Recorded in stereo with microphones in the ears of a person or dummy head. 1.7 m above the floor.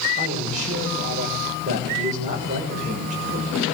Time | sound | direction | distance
0.2 | a man speaking | 40° right (ahead or behind) | 8 m